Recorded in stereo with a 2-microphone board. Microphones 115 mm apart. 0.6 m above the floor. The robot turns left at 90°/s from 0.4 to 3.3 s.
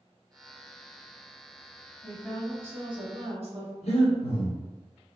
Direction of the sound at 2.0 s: 20° left.